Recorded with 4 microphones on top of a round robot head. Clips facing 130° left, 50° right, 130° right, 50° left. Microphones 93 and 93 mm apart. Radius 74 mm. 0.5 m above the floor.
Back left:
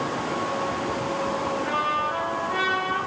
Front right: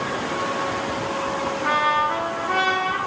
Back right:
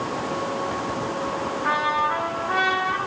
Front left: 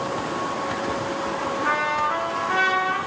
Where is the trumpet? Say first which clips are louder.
Front right 5 dB, back right 2 dB; 55° right, 4.5 m.